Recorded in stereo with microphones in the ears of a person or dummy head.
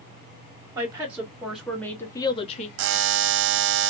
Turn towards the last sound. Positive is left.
turn(degrees=-60)  # may be behind; listen again after turning